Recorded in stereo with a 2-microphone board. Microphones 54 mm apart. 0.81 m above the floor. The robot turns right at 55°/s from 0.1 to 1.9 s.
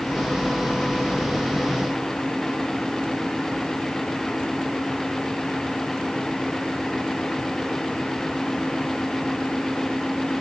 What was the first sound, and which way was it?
Only background noise.